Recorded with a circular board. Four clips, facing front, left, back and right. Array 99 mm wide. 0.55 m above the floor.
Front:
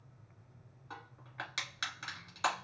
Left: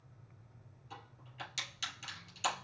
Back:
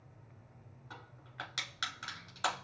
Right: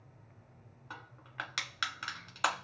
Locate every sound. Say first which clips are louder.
0.9 s crushing: right 6 dB, front 3 dB; 85° right, 1.9 m